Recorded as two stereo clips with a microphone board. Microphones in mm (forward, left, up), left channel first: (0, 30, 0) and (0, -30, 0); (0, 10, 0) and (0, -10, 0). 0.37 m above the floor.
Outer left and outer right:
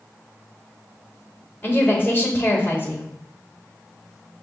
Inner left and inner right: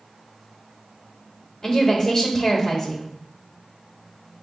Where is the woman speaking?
30° left (ahead or behind), 1.1 m.